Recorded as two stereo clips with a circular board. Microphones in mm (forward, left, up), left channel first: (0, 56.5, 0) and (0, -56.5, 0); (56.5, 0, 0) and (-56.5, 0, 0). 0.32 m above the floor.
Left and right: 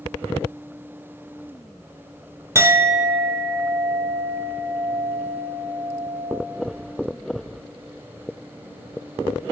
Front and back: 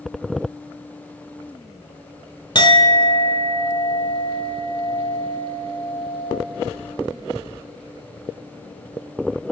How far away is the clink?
About 0.9 m.